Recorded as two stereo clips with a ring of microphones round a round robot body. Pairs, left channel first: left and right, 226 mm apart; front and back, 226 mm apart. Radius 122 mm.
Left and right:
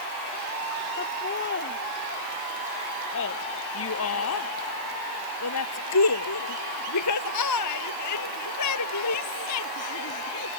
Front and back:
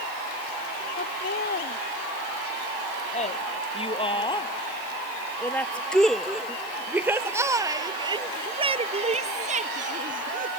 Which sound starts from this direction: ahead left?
Laughter, at 1.0 s.